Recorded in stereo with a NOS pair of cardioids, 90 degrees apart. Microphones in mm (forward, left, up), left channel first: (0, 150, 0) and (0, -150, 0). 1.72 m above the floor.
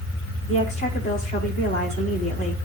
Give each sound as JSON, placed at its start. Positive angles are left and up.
{"t": 0.5, "sound": "a woman speaking", "azimuth_deg": 25, "distance_m": 6.0}